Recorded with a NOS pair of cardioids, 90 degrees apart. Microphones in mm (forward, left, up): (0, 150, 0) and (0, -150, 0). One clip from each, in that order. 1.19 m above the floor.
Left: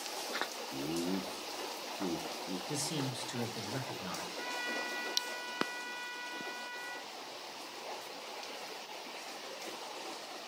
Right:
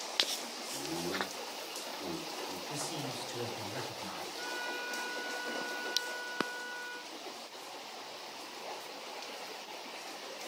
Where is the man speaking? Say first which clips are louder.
Left 3 dB; 60° left, 2 m.